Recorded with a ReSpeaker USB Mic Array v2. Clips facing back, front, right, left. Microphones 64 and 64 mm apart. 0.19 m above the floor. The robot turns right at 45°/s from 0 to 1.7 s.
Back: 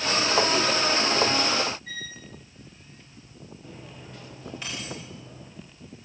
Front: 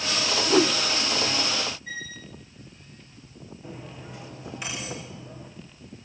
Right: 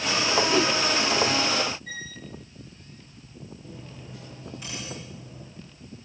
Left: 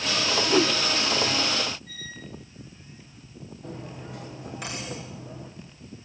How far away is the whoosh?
About 1.0 m.